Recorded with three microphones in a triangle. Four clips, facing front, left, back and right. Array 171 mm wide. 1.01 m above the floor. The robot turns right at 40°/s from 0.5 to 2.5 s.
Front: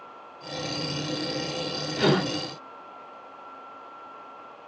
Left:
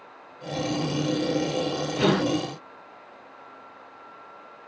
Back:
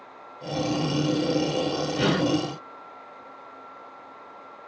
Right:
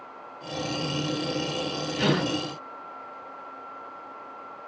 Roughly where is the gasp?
Ahead left.